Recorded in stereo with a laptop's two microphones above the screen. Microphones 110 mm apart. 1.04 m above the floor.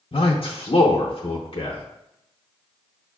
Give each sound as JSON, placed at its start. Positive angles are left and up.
{"t": 0.1, "sound": "a man speaking", "side_deg": 60, "distance_m": 0.7}